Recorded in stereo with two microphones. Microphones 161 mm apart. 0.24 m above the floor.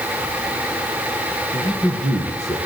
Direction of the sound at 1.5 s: 25° right (ahead or behind).